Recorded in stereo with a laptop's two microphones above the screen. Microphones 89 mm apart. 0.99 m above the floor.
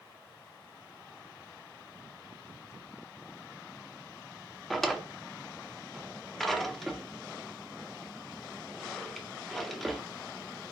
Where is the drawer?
Centre (ahead or behind), 0.6 m.